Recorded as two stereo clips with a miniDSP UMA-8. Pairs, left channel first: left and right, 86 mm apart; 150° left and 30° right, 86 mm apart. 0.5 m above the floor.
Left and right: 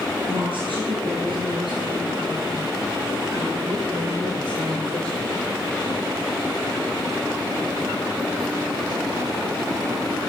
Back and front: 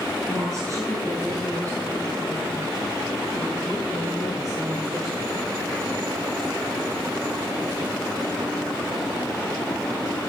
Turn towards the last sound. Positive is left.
turn(degrees=-75)